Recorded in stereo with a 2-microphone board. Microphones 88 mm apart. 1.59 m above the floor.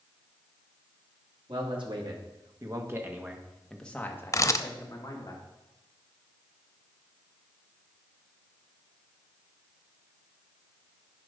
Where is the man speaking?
65° right (ahead or behind), 2.5 m; by 5.3 s 45° left (ahead or behind), 2.5 m.